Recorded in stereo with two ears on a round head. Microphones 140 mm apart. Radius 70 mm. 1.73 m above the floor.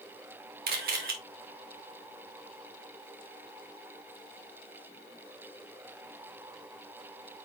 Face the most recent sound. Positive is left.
turn(degrees=-70)  # may be behind; listen again after turning